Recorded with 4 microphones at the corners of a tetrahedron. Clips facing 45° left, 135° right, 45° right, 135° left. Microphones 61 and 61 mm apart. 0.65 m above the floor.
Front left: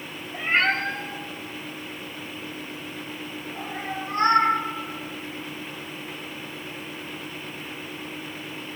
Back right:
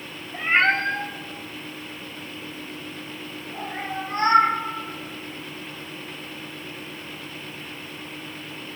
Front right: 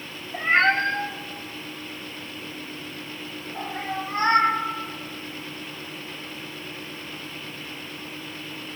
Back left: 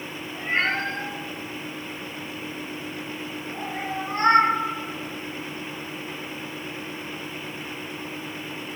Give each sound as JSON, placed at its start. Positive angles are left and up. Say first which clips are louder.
{"t": 0.3, "sound": "a cat meowing", "louder": "back right 3 dB, front right 5 dB", "azimuth_deg": -65, "distance_m": 1.2}